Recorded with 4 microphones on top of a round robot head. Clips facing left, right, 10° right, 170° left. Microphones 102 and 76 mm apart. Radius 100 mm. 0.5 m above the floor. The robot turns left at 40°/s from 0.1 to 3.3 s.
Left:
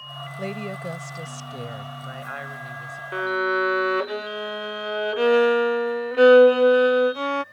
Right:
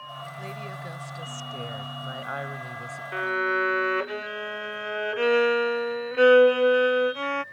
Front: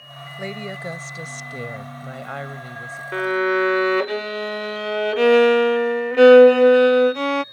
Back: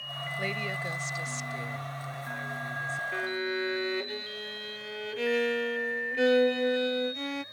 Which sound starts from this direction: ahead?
A violin, at 3.1 s.